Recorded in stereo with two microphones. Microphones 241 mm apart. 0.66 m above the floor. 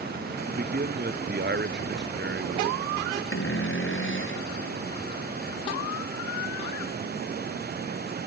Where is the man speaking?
35° right (ahead or behind); by 3.2 s 45° right (ahead or behind).